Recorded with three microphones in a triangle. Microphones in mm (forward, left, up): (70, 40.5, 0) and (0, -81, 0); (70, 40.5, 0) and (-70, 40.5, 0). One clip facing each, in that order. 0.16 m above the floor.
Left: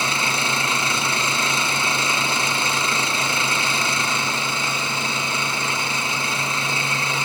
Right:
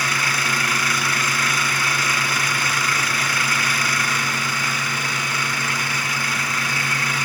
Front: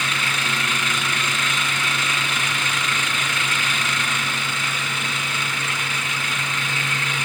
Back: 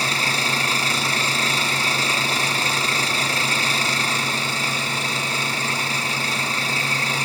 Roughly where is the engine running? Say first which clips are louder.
Left 1 dB, back 2 dB; behind left.